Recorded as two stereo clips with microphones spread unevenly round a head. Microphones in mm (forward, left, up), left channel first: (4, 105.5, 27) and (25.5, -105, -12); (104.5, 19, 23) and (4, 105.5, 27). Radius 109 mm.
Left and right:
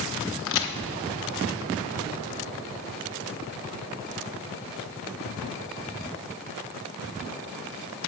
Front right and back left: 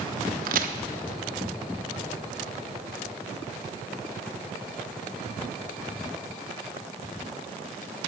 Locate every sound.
0.5 s a crack: 130° left, 1.1 m